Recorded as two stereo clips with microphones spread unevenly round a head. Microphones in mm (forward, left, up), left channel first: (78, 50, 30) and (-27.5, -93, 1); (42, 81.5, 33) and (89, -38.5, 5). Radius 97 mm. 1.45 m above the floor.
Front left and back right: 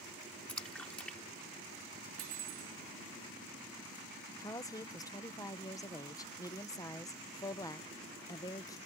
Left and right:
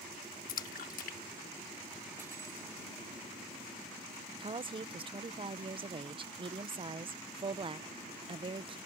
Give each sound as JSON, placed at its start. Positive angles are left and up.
{"t": 0.5, "sound": "a splash", "azimuth_deg": 135}
{"t": 2.2, "sound": "cutlery clinking", "azimuth_deg": -155}
{"t": 4.4, "sound": "a woman speaking", "azimuth_deg": -20}